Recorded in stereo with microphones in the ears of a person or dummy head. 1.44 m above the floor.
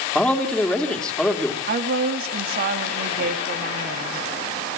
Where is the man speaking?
Centre (ahead or behind), 3 m.